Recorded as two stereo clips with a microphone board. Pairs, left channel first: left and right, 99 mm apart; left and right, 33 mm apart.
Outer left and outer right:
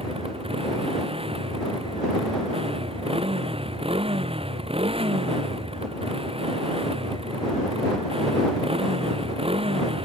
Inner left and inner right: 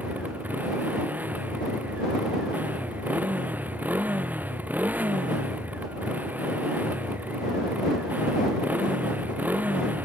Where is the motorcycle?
70° right (ahead or behind).